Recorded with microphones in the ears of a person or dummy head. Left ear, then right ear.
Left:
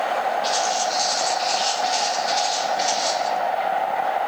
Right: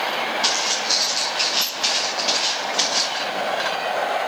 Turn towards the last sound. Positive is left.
turn(degrees=-85)